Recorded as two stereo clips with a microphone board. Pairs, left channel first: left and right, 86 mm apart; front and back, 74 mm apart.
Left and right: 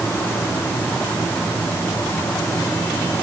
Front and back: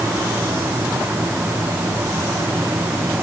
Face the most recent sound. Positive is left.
No sound to turn to.